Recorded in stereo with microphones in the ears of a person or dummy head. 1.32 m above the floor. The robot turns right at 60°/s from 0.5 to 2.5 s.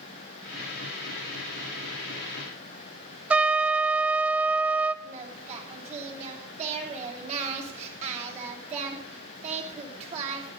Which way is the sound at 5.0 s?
40° right (ahead or behind).